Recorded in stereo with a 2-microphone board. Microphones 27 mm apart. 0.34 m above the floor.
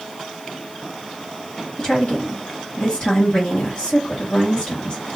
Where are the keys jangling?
No keys jangling in this recording.